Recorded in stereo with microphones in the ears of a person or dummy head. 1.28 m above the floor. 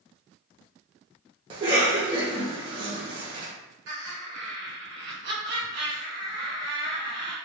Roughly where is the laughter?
Right.